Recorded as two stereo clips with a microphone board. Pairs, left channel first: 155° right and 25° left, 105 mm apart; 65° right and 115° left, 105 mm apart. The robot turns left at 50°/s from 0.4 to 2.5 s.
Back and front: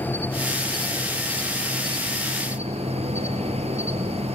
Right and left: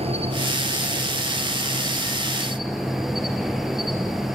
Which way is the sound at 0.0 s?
130° left.